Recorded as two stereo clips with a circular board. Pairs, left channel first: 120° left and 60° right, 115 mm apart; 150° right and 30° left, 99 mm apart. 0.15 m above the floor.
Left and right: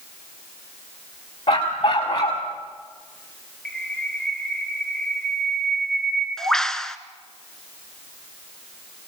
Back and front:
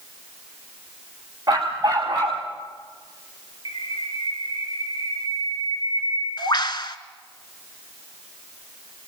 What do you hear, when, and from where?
1.5 s a dog barking: 85° left, 4.5 m
3.6 s a bird: 155° right, 0.8 m